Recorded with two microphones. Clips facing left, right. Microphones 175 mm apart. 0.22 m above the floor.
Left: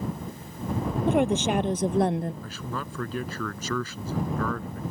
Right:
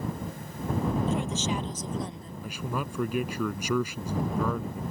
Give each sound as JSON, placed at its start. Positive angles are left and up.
{"t": 1.1, "sound": "a woman speaking", "side_deg": 65}
{"t": 2.4, "sound": "a man speaking", "side_deg": -15}